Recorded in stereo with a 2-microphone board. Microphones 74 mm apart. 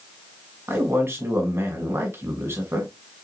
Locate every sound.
0.7 s a man speaking: 40° right (ahead or behind), 1.8 m